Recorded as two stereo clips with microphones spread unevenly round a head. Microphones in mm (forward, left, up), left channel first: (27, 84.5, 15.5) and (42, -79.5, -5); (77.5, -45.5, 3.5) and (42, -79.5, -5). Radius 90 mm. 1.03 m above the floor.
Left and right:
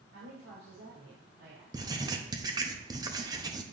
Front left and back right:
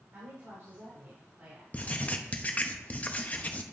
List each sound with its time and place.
0.1 s a woman speaking: 115° right, 4 m; by 1.6 s 90° right, 3 m
1.7 s writing: 15° right, 0.9 m